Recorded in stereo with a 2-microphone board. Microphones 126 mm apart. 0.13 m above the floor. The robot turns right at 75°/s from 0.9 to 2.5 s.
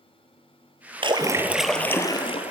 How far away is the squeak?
No squeak in this recording.